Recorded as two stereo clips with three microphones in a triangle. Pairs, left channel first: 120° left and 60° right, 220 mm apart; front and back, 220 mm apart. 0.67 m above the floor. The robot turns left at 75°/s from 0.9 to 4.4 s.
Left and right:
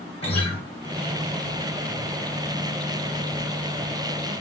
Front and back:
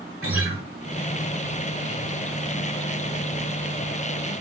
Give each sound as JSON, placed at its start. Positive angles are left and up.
{"t": 0.2, "sound": "a guitar", "azimuth_deg": 180, "distance_m": 1.3}